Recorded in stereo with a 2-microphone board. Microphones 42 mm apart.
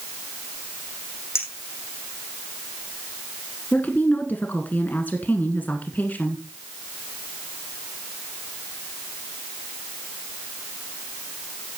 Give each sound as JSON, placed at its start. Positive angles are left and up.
{"t": 1.4, "sound": "a clink", "side_deg": 80, "distance_m": 4.0}
{"t": 3.7, "sound": "a woman speaking", "side_deg": 45, "distance_m": 1.7}